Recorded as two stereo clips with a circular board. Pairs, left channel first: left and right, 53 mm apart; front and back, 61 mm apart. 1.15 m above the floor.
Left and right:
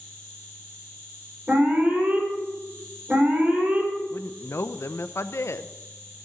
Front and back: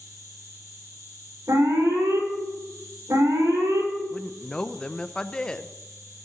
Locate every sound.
0.0 s an insect: 160° left, 6.5 m
1.5 s an alarm: 155° right, 4.5 m
4.1 s a woman speaking: 75° left, 0.7 m